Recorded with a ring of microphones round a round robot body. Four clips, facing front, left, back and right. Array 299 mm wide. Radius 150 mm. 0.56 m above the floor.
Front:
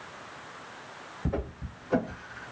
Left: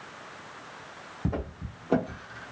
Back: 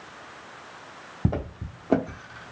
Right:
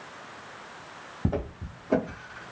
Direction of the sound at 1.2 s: 170° right.